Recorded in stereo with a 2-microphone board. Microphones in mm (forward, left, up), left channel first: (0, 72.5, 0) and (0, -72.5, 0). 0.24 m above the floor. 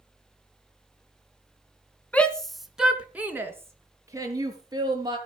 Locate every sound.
2.1 s a shout: 10° left (ahead or behind), 2.5 m; by 5.2 s 30° right (ahead or behind), 5 m